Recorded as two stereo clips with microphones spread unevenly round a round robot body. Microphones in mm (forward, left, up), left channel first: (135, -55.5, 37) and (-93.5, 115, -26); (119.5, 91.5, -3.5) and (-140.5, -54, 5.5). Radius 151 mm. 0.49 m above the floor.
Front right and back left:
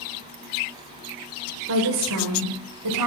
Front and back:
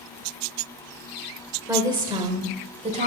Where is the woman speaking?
130° left, 1.9 m; by 3.1 s 145° left, 2.5 m.